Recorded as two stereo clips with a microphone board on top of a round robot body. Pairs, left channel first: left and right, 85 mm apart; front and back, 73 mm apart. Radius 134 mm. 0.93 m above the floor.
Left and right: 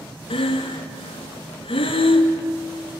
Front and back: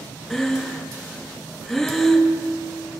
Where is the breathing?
85° left, 1.4 m.